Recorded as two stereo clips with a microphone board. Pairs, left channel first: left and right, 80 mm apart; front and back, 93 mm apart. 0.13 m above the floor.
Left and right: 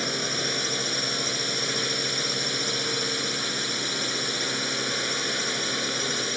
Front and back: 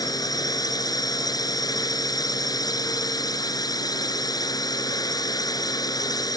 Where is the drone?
Straight ahead.